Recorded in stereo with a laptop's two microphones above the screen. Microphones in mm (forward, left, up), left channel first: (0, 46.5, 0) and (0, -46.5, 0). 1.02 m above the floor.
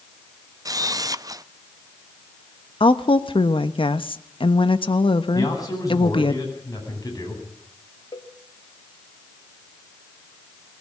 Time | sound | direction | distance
0.7 | a camera shutter | 45° right (ahead or behind) | 0.6 m
2.8 | a woman speaking | 75° left (ahead or behind) | 1.1 m
5.3 | a man speaking | 40° left (ahead or behind) | 9.5 m
8.1 | a cowbell | 55° left (ahead or behind) | 1.5 m